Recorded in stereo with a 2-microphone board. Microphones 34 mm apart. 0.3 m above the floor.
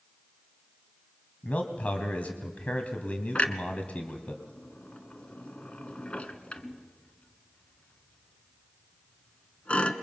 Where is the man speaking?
50° left (ahead or behind), 1.7 m.